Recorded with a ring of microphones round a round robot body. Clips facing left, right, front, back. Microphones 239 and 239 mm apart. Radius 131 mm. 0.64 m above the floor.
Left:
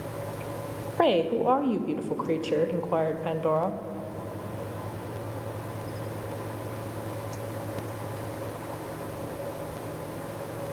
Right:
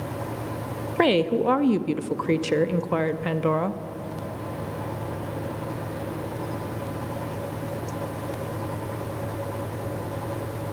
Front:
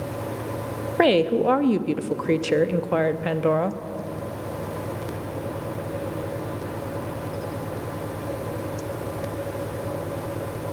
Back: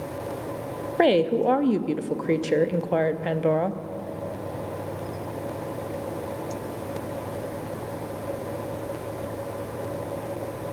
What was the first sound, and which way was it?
A woman speaking, 80° right.